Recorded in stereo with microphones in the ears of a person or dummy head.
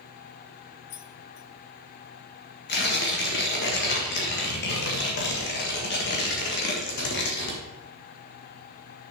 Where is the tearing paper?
50° left (ahead or behind), 1.7 m.